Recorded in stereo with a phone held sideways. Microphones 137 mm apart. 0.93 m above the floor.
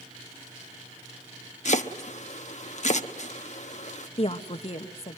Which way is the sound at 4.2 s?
45° left (ahead or behind).